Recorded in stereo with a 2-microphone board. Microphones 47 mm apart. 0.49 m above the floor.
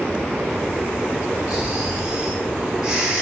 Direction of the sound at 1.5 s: 15° right (ahead or behind).